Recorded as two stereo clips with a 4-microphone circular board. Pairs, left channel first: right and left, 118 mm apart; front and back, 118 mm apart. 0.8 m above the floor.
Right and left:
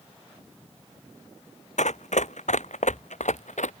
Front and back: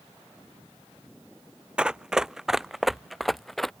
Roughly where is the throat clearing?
I don't hear throat clearing.